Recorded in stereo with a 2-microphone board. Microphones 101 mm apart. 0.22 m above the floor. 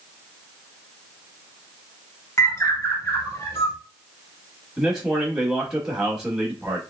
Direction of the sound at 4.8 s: 5° right (ahead or behind).